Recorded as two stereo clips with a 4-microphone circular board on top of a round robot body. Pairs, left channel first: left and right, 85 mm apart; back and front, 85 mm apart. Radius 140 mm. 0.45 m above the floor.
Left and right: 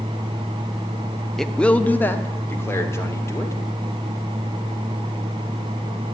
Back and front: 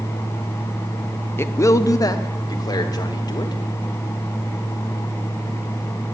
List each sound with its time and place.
1.4 s a man speaking: 170° left, 0.8 m; by 3.5 s 145° left, 1.9 m